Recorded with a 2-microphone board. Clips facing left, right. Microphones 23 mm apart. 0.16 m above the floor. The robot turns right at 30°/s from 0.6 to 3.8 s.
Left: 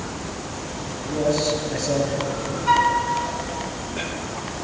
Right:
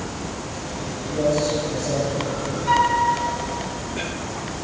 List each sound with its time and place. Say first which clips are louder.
1.1 s a man speaking: even; 30° left, 2.5 m; by 2.6 s 75° left, 2.5 m
2.7 s a flute: left 1 dB; 20° left (ahead or behind), 1.8 m